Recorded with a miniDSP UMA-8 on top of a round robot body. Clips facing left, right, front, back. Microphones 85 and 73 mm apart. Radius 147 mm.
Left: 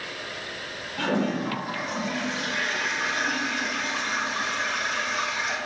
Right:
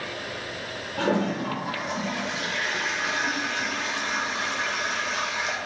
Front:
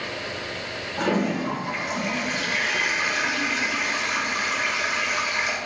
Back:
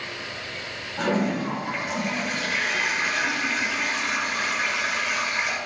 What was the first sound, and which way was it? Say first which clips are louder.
A toilet flushing: right 1 dB, even; 85° right.